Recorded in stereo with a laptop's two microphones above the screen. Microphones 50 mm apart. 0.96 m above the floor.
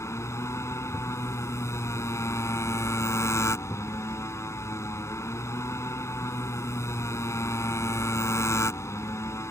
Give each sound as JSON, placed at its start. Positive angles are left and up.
{"t": 0.0, "sound": "a motorcycle", "side_deg": 65}